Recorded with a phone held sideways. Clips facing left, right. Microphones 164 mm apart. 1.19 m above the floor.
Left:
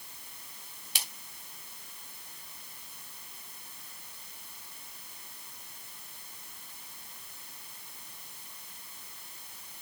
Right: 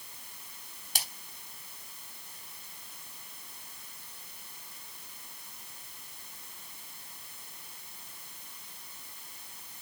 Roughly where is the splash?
Right.